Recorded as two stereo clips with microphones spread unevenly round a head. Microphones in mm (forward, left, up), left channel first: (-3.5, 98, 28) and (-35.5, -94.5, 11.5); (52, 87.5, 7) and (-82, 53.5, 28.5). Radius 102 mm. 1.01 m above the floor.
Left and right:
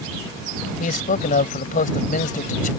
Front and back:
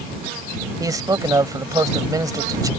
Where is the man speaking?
130° left.